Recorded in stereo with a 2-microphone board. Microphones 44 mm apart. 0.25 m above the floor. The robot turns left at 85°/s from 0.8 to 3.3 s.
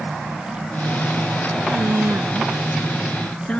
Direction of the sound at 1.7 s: 80° right.